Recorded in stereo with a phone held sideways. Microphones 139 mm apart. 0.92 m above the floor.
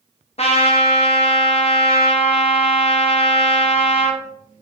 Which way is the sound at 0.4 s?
50° left (ahead or behind).